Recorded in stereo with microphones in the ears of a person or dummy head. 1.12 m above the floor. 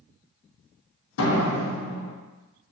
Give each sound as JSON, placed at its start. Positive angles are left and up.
{"t": 1.2, "sound": "a door slam", "side_deg": 70, "distance_m": 0.8}